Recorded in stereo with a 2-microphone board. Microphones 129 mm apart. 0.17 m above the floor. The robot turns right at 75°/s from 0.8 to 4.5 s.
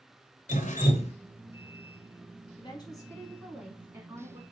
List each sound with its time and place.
0.5 s dripping: 75° left (ahead or behind), 0.6 m; by 1.1 s 55° left (ahead or behind), 0.6 m
2.6 s a woman speaking: 110° left, 1.3 m; by 4.4 s 110° right, 1.3 m